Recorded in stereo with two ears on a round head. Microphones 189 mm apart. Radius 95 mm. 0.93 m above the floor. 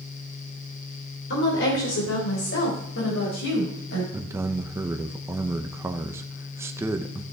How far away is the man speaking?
About 0.7 m.